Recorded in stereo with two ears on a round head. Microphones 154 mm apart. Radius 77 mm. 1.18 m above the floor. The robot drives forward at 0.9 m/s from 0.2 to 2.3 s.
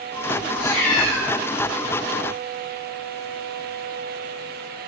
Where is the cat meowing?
80° left, 2.5 m.